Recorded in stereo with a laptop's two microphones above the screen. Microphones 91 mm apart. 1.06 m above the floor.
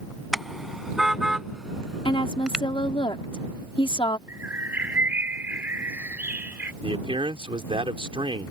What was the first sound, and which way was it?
A car horn, centre (ahead or behind).